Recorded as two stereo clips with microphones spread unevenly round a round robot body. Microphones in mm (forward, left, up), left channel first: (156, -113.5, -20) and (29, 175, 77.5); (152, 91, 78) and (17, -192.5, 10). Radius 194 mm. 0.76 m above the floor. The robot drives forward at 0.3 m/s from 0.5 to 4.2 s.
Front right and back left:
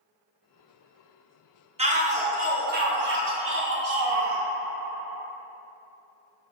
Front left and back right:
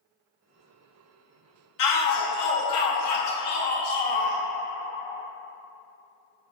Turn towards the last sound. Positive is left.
turn(degrees=70)